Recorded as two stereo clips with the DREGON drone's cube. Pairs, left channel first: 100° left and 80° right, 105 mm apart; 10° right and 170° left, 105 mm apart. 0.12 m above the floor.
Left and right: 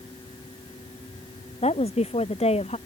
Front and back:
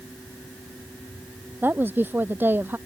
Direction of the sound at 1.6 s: 100° left.